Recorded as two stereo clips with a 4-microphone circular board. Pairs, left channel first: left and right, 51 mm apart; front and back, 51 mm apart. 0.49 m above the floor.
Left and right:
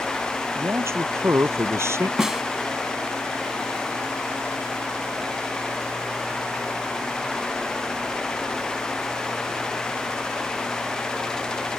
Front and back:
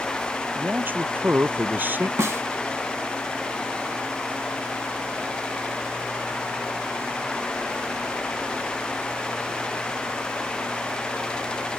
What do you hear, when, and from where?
0.6 s a man speaking: 125° right
2.2 s a snare drum: 165° right